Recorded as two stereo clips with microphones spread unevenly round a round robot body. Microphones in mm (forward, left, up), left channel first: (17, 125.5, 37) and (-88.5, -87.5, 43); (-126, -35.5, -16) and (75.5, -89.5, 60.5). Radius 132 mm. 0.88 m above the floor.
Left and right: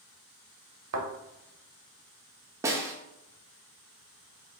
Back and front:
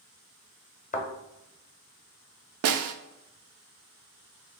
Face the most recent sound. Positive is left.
turn(degrees=-40)